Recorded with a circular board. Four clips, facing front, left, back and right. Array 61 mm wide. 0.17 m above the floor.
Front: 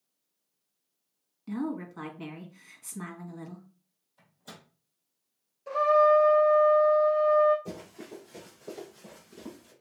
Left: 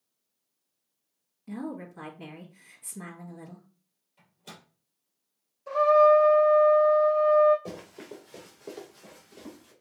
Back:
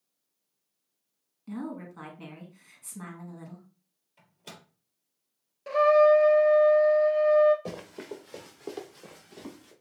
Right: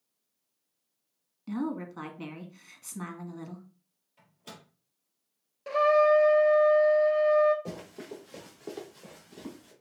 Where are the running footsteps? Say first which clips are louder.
Even, back 3 dB; 175° left, 2.0 m; by 9.7 s 155° right, 4.5 m.